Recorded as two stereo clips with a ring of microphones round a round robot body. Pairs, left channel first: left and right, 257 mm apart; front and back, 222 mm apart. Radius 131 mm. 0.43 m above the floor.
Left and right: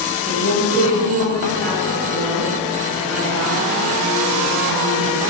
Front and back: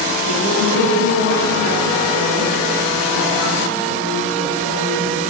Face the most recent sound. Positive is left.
turn(degrees=175)